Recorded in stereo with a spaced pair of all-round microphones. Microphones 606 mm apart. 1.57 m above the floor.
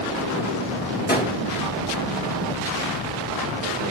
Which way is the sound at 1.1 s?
15° left (ahead or behind).